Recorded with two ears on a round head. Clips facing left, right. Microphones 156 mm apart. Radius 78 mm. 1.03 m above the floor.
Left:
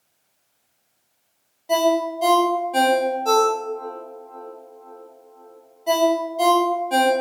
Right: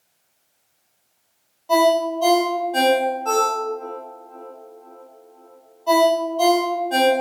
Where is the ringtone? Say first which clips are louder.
Right 2 dB; 20° left (ahead or behind), 0.6 m.